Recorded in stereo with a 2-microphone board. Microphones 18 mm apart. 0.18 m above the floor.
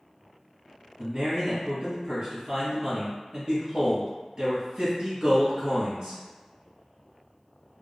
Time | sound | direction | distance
1.0 | a man speaking | 40° right (ahead or behind) | 1.7 m